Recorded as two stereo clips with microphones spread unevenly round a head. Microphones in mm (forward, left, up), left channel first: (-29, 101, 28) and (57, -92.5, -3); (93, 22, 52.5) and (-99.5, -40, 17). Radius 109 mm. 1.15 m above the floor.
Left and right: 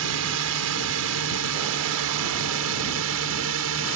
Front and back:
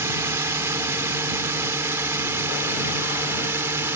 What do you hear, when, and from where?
0.0 s a drone: 85° right